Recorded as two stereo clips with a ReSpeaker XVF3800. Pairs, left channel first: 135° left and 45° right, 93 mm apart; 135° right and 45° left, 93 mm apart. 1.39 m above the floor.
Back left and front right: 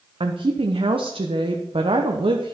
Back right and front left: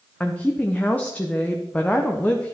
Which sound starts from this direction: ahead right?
A woman speaking, at 0.2 s.